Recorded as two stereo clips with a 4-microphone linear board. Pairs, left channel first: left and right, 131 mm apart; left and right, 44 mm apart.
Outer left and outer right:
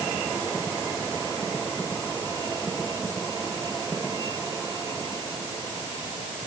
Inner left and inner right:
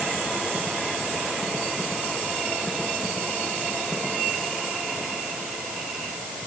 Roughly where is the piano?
I don't hear a piano.